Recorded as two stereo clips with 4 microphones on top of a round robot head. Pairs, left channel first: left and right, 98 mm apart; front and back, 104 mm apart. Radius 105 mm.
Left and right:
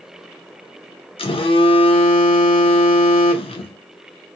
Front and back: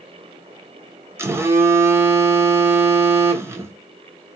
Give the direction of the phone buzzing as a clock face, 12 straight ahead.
8 o'clock.